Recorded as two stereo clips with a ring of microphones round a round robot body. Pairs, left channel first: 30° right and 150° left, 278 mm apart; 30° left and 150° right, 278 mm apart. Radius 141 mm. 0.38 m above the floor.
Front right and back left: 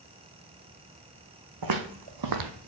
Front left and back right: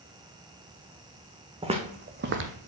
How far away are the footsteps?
About 1.3 m.